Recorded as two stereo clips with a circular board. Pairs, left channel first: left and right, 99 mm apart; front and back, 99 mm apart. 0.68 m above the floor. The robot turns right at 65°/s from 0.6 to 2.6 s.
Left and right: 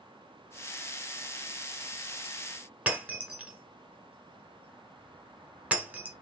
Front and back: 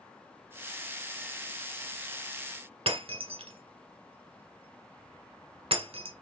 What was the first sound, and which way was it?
Breaking glass, 165° right.